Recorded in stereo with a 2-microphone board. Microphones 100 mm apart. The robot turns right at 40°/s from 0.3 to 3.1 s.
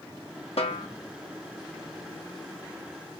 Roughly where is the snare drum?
Left.